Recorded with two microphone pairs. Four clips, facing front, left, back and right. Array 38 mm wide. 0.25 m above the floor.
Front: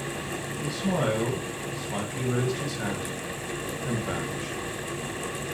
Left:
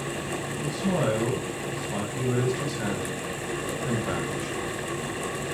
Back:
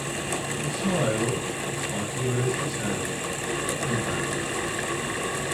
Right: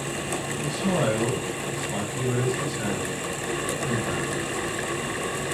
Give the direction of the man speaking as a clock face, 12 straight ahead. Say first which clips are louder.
Right 1 dB, even; 2 o'clock.